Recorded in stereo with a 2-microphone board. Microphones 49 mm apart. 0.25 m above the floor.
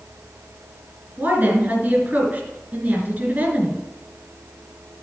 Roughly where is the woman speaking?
Right.